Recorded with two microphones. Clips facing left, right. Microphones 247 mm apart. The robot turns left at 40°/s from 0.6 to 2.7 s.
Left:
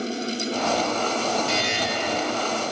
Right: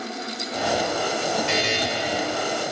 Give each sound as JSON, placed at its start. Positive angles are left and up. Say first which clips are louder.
{"t": 1.5, "sound": "a buzzer", "louder": "right 2 dB", "side_deg": -85, "distance_m": 4.0}